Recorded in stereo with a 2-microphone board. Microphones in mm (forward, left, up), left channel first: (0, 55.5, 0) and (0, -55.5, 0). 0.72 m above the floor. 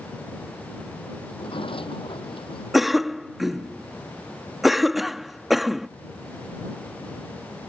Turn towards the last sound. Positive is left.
turn(degrees=0)  # may be behind; listen again after turning